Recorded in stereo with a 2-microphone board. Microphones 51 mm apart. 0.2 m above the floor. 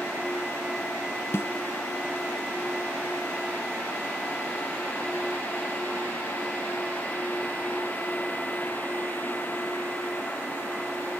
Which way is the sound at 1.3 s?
55° left (ahead or behind).